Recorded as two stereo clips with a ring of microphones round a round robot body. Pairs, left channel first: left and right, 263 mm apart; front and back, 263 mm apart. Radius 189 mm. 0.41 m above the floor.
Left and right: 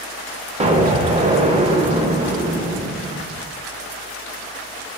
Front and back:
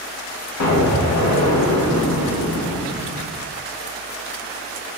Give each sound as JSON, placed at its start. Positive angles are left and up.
{"t": 0.6, "sound": "an explosion", "azimuth_deg": -20, "distance_m": 0.6}